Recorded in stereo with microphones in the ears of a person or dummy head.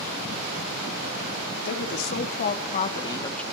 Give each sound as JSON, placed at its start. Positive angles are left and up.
{"t": 1.6, "sound": "a woman speaking", "side_deg": 60, "distance_m": 3.0}